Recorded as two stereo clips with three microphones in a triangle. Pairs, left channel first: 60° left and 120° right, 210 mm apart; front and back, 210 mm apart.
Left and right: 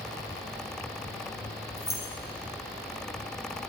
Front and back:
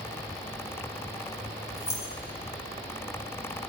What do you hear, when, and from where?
1.8 s keys jangling: 95° left, 5 m